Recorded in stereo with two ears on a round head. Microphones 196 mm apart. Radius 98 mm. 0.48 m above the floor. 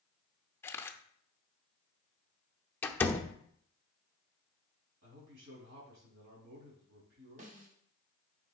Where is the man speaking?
60° right (ahead or behind), 4 m.